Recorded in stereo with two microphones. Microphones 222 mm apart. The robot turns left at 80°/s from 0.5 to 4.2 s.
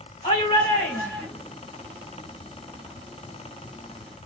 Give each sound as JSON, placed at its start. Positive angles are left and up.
{"t": 0.2, "sound": "a shout", "azimuth_deg": 55, "distance_m": 2.0}